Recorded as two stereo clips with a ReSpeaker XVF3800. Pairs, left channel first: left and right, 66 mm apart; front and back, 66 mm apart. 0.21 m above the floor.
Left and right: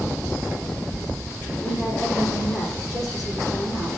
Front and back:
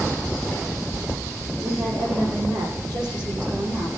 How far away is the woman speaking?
About 9.5 m.